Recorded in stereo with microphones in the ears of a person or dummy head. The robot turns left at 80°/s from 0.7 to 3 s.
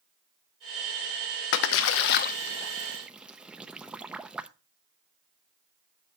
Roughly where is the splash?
Left.